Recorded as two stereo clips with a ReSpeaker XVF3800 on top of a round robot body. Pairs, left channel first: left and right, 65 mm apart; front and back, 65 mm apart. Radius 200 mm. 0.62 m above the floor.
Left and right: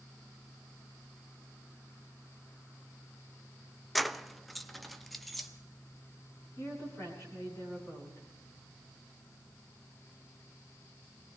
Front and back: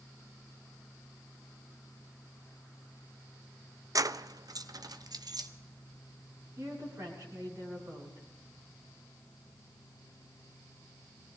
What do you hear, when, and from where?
4.0 s keys jangling: straight behind, 0.6 m
6.6 s a woman speaking: 130° left, 8 m